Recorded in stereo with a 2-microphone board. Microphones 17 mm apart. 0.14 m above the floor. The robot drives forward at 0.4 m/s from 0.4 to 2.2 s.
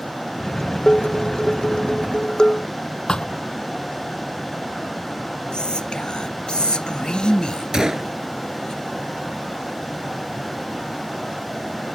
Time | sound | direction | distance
0.9 | dishes clattering | 50° left (ahead or behind) | ?
3.1 | a thud | 50° left (ahead or behind) | ?
5.5 | whispering | 55° left (ahead or behind) | ?
7.7 | a gunshot | 35° right (ahead or behind) | ?